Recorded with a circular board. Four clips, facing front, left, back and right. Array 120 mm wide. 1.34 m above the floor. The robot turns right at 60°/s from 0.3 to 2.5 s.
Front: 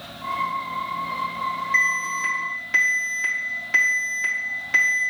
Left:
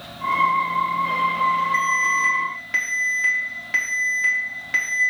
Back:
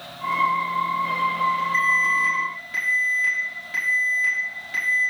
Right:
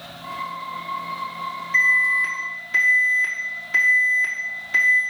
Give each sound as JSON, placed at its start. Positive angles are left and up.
{"t": 1.7, "sound": "an alarm", "azimuth_deg": 10, "distance_m": 4.0}